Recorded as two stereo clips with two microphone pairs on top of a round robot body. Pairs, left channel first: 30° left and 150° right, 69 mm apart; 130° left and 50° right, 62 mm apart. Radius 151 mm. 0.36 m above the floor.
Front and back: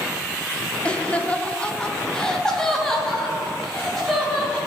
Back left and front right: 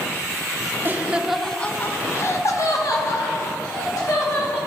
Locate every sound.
0.8 s laughter: 20° right, 1.0 m; by 4.6 s 115° left, 3.5 m